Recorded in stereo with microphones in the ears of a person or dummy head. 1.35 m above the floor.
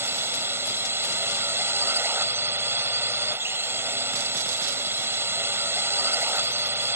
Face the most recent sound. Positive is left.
turn(degrees=-10)  # may be behind; listen again after turning